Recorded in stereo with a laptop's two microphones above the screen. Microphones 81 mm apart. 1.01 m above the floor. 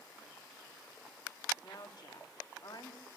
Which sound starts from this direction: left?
A woman speaking, at 1.6 s.